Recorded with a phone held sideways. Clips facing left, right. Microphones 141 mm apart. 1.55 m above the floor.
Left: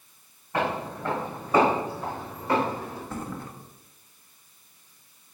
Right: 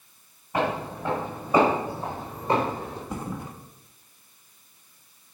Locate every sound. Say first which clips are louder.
0.5 s footsteps: right 1 dB; 5° right (ahead or behind), 4.5 m; by 3.0 s 25° right (ahead or behind), 3 m
3.1 s a thud: right 1 dB; 15° right (ahead or behind), 1.2 m